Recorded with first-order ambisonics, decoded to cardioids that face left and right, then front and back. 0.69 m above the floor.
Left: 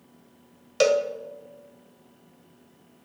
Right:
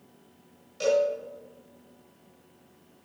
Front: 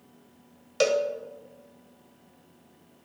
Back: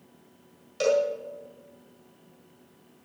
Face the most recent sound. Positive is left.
turn(degrees=60)